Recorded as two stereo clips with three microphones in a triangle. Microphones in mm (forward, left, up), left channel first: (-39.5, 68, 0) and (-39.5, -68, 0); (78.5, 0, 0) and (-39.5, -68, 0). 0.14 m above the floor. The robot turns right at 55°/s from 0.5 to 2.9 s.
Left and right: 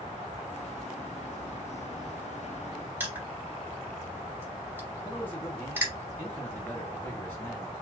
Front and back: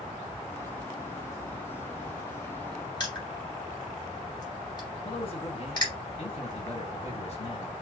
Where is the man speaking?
20° left, 2 m.